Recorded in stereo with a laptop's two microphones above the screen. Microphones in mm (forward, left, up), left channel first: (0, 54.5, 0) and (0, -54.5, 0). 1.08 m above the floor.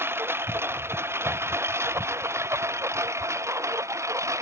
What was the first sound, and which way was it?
A lawn mower, 20° right (ahead or behind).